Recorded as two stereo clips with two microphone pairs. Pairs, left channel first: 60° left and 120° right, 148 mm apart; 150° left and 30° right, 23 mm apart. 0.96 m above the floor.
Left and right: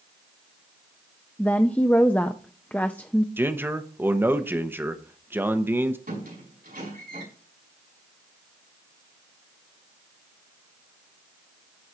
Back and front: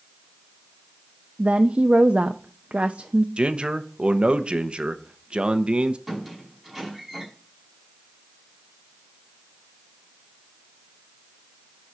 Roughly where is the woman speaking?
Ahead.